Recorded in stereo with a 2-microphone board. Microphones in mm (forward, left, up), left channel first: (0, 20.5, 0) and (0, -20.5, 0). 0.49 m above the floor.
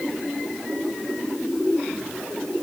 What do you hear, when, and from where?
Only background noise.